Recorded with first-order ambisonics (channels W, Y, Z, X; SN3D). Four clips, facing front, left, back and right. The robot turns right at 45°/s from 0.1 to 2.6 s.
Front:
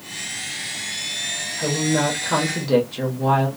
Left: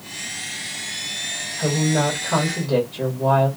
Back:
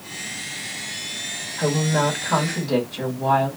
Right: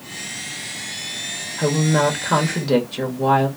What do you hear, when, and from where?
1.6 s a woman speaking: 115° right, 1.2 m; by 3.5 s 65° right, 1.2 m